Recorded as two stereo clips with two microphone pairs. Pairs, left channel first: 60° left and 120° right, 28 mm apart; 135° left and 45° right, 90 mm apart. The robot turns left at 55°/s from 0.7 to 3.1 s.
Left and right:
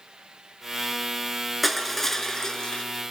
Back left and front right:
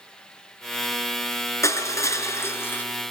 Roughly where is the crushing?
Behind left.